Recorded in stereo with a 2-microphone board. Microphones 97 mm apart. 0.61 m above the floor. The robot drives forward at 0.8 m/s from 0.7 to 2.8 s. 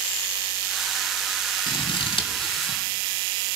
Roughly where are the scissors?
Left.